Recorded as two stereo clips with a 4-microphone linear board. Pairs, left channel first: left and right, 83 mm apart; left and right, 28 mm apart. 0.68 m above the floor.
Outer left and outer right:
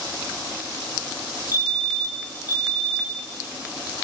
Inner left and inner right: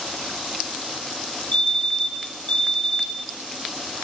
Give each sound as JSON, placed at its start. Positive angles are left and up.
{"t": 1.5, "sound": "a fire alarm", "side_deg": 45, "distance_m": 7.5}